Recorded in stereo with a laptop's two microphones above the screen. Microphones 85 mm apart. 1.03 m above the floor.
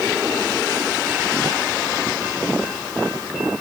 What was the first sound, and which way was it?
Only background noise.